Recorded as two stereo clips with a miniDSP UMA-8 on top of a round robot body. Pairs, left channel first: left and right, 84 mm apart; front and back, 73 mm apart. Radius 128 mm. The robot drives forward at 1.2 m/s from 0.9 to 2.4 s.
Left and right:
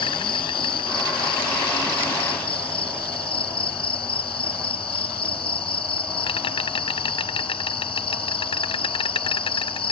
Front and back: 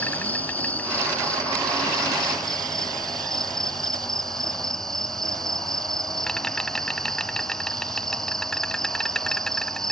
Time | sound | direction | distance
0.0 | an insect | 70° left | ?